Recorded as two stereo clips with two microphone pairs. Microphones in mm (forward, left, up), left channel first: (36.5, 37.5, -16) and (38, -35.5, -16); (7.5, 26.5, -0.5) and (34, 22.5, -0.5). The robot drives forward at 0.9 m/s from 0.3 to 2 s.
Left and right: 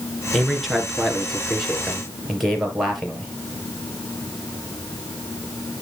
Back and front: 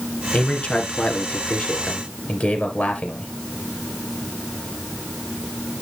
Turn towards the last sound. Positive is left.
turn(degrees=180)